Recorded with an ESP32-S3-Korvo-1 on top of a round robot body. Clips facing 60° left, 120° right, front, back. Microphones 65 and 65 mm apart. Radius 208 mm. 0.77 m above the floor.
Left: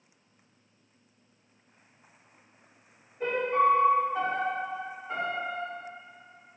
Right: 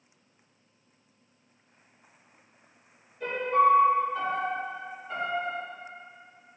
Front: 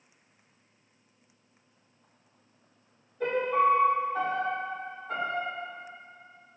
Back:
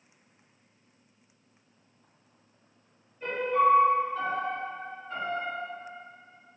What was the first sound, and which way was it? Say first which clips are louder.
A piano: right 2 dB, even; straight ahead.